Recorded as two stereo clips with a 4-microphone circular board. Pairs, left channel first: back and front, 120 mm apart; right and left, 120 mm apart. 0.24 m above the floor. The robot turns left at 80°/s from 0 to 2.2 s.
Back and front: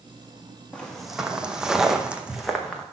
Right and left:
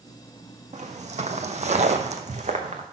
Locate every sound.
0.7 s footsteps: 100° left, 1.0 m